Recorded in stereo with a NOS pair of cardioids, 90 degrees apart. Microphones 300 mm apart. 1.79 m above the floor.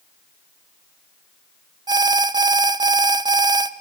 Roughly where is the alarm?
Ahead.